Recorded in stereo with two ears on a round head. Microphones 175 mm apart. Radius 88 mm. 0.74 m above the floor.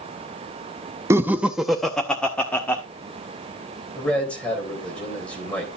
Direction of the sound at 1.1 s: 15° right (ahead or behind).